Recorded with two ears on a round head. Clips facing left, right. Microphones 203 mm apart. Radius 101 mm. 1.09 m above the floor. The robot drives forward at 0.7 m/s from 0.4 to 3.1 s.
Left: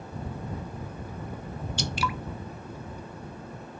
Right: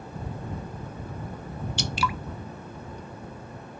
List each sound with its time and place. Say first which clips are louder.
1.8 s dripping: right 1 dB; 50° right (ahead or behind), 0.5 m; by 2.1 s 65° right (ahead or behind), 0.5 m